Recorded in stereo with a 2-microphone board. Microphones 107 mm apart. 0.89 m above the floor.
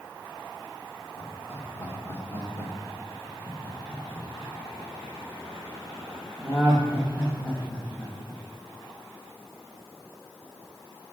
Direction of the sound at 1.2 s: 30° left (ahead or behind).